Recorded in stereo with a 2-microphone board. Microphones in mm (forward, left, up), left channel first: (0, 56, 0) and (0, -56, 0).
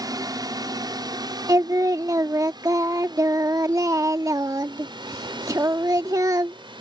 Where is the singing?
30° right (ahead or behind).